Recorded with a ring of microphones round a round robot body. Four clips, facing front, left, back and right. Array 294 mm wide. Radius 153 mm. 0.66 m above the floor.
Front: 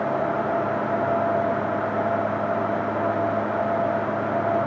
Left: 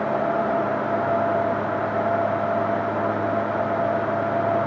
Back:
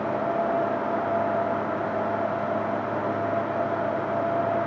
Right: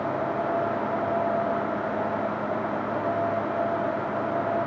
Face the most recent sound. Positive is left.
No sound to turn to.